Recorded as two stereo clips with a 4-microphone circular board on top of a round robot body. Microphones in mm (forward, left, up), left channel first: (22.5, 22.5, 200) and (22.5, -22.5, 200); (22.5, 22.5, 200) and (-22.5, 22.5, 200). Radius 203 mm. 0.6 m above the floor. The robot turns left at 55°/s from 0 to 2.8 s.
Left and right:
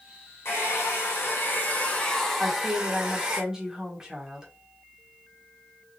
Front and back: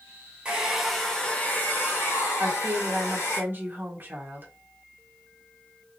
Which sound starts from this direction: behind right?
A woman speaking, at 2.4 s.